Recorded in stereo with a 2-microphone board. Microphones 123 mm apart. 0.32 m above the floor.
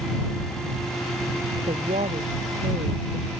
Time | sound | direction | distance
1.7 | a woman speaking | 60° right (ahead or behind) | ?